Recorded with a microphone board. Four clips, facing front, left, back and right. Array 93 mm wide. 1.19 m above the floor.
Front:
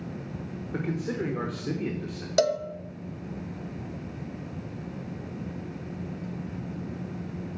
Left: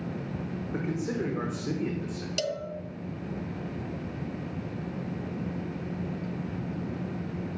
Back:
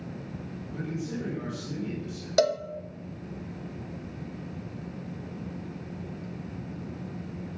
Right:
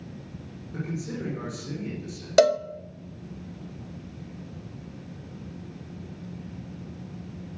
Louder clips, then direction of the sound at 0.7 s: Left 2 dB, front 4 dB; 30° left.